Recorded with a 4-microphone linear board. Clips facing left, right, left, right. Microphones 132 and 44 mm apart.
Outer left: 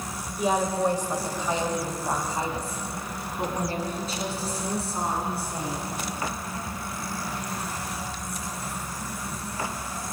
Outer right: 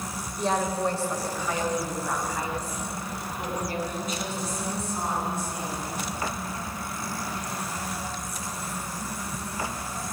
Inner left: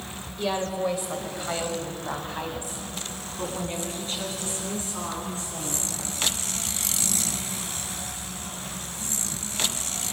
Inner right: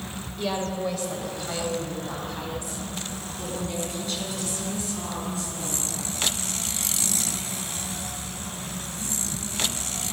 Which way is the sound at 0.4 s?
5° left (ahead or behind).